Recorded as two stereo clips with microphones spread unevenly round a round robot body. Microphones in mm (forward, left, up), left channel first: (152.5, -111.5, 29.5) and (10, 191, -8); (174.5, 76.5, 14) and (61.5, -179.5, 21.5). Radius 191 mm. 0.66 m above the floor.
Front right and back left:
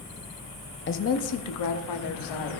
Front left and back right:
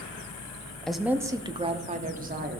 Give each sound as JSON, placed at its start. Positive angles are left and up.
{"t": 0.9, "sound": "a woman speaking", "azimuth_deg": -20, "distance_m": 0.8}